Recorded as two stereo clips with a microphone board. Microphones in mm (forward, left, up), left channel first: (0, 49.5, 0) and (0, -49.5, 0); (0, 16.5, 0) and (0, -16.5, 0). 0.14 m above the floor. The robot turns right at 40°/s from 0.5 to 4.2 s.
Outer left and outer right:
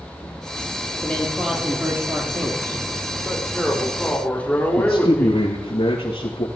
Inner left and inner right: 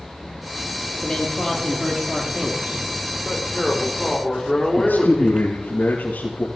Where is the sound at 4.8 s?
75° left (ahead or behind), 5 m.